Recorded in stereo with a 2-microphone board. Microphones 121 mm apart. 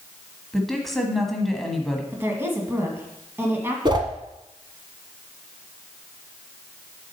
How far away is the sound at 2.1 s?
About 1.8 m.